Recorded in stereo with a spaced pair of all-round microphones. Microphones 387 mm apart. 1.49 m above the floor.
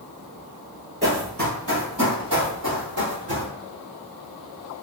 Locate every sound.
1.0 s running footsteps: 35° right (ahead or behind), 2.0 m; by 3.5 s 65° right (ahead or behind), 3.5 m